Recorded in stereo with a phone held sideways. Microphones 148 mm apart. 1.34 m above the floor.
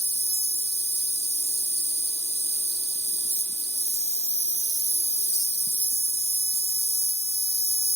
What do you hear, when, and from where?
0.0 s an insect: 45° left (ahead or behind)